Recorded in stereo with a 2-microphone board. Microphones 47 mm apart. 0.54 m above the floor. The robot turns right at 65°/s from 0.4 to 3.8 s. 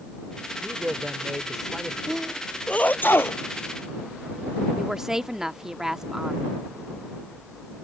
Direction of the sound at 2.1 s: 10° right (ahead or behind).